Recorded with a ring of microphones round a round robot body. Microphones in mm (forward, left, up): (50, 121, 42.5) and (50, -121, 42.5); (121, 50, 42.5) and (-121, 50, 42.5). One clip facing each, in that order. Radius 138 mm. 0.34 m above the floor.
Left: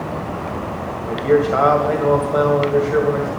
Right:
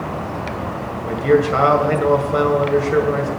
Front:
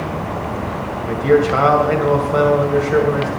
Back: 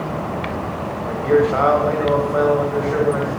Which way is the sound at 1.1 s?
45° right.